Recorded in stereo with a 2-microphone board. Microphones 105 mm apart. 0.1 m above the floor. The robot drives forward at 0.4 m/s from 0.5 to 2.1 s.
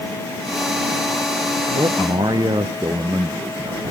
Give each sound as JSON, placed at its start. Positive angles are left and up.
{"t": 1.8, "sound": "a man speaking", "side_deg": -40, "distance_m": 1.5}